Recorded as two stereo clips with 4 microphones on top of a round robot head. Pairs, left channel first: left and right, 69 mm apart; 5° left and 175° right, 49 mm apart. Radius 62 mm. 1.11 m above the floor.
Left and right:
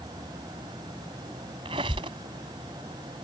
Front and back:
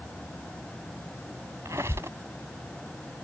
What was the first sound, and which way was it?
A squeak, 115° right.